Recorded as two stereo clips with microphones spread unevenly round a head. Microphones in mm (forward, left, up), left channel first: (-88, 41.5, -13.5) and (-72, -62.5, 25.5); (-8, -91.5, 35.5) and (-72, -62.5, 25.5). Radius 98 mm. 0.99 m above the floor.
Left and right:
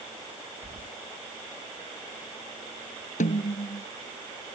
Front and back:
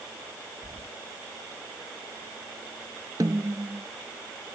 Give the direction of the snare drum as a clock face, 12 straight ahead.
9 o'clock.